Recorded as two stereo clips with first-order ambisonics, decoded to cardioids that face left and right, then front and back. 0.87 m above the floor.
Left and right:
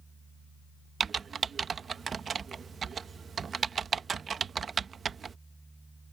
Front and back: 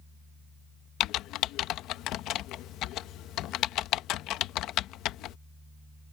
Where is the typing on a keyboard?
25° right.